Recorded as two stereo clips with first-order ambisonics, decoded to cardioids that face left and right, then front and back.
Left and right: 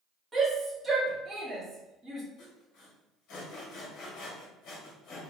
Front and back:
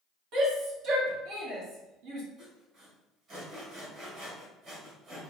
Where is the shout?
165° right, 1.4 m.